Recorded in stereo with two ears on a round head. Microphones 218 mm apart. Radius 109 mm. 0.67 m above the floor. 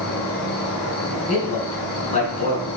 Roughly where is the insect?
Left.